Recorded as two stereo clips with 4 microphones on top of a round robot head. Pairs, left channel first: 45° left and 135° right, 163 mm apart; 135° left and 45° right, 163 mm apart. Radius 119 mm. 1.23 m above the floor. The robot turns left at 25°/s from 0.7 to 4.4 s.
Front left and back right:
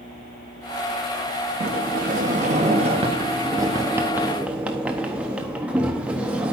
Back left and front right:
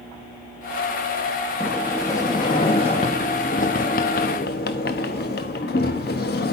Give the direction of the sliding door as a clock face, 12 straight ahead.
5 o'clock.